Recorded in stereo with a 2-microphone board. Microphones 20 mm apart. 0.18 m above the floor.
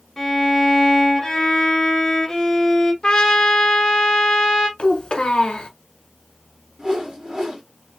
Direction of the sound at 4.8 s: 60° left (ahead or behind).